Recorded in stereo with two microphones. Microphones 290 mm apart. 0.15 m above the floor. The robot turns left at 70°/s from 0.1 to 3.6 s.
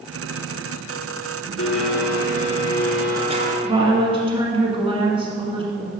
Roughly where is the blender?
Left.